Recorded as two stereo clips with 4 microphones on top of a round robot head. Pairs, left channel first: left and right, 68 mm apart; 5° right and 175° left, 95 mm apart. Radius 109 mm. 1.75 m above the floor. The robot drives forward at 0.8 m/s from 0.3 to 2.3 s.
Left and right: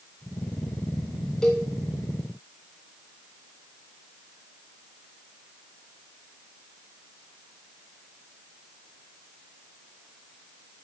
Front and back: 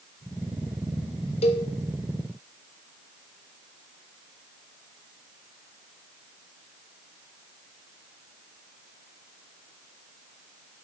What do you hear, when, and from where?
1.4 s a cowbell: 10° left, 0.9 m